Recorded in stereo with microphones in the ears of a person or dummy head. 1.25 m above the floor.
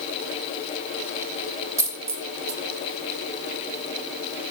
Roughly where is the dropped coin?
Centre.